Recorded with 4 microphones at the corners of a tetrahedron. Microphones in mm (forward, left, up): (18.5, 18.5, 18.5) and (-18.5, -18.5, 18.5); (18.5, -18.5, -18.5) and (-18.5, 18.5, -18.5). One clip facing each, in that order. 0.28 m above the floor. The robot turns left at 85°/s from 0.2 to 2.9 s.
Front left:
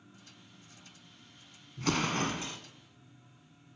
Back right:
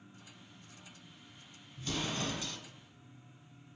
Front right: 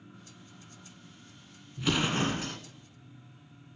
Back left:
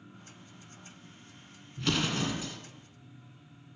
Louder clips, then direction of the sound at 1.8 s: Front left 7 dB, front right 2 dB; 45° left.